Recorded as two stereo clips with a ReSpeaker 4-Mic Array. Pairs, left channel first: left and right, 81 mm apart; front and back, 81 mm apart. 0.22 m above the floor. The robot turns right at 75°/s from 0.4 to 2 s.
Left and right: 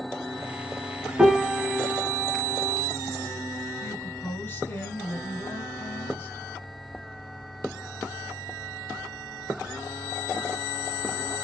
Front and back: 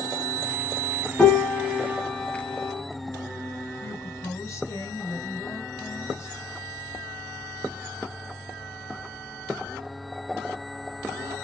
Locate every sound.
1.2 s a piano: 30° right, 0.6 m; by 2.8 s 30° left, 0.6 m
3.8 s a woman speaking: 30° left, 3 m